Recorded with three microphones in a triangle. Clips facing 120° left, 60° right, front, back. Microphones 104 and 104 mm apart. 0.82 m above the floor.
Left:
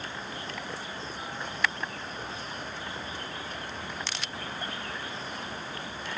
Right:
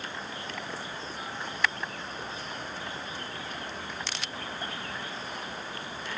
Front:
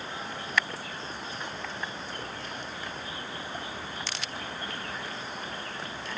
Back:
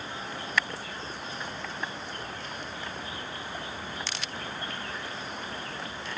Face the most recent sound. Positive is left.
No sound to turn to.